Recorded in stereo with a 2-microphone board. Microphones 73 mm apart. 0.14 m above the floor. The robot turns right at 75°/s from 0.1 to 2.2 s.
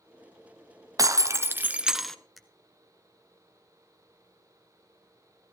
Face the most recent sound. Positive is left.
turn(degrees=0)  # may be behind; listen again after turning